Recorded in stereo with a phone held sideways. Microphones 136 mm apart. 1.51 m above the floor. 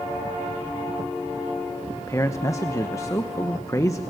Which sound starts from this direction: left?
A man speaking, at 2.0 s.